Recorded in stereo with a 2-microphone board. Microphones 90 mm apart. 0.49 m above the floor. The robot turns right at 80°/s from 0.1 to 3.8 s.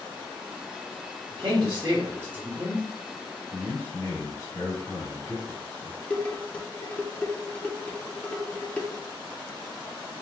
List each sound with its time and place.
1.3 s a man speaking: 110° right, 0.9 m; by 2.8 s 15° left, 0.9 m
3.5 s a man speaking: 10° left (ahead or behind), 1.8 m; by 6.0 s 30° left (ahead or behind), 1.8 m
6.1 s dishes clattering: 15° left (ahead or behind), 0.6 m